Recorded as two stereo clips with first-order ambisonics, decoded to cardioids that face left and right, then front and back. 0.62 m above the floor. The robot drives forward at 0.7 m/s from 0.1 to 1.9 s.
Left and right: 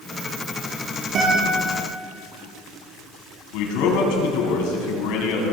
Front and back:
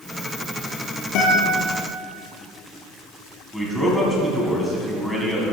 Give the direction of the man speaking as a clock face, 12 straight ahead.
9 o'clock.